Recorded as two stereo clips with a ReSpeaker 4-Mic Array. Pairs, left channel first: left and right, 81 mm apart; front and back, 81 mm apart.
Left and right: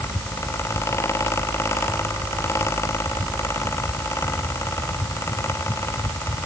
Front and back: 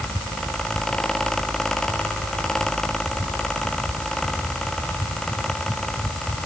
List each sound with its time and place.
Only background noise.